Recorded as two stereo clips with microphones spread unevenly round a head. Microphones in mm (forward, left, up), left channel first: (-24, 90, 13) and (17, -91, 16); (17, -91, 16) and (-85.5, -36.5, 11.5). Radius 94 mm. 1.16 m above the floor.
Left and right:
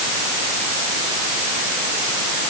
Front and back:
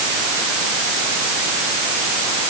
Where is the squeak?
No squeak in this recording.